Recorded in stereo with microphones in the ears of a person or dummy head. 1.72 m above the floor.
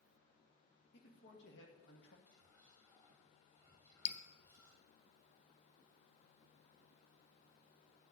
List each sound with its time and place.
0.9 s a man speaking: 70° left (ahead or behind), 1.9 m
2.3 s whispering: 10° left (ahead or behind), 4 m
4.0 s dripping: 40° left (ahead or behind), 0.9 m